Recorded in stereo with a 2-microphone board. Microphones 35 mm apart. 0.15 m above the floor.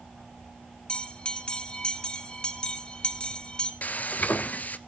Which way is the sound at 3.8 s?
50° left (ahead or behind).